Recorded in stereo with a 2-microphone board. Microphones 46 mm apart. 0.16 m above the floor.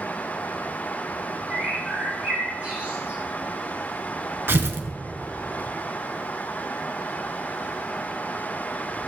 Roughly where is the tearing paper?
Right.